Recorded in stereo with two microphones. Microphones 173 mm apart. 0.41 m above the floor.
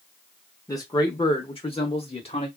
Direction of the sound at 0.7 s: 20° left (ahead or behind).